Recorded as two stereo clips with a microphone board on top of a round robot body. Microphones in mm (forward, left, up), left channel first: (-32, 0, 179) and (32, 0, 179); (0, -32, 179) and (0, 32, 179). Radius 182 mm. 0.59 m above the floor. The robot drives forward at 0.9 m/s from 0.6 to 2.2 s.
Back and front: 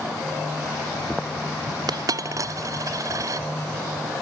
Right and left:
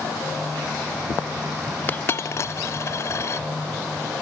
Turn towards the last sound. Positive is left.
turn(degrees=-40)